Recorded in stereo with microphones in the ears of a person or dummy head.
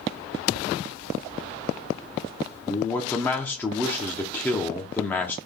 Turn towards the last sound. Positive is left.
turn(degrees=10)  # may be behind; listen again after turning